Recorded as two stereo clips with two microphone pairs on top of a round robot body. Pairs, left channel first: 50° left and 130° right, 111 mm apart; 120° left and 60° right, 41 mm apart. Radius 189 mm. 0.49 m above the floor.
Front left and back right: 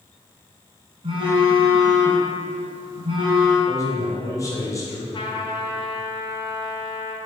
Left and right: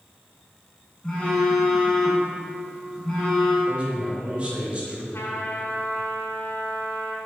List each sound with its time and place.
1.0 s a phone buzzing: 170° right, 1.3 m
3.7 s a man speaking: 5° right, 1.9 m
5.1 s a trumpet: 95° left, 1.2 m